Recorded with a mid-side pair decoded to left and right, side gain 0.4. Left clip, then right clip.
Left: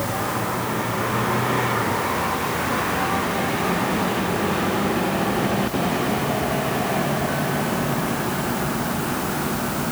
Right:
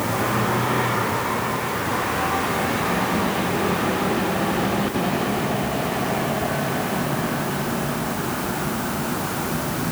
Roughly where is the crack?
I don't hear a crack.